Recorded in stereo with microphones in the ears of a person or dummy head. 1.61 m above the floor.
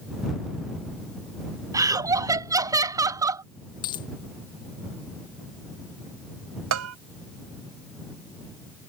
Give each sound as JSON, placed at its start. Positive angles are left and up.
{"t": 1.7, "sound": "laughter", "side_deg": -20}
{"t": 3.8, "sound": "a dropped coin", "side_deg": 25}
{"t": 6.7, "sound": "a bell", "side_deg": -85}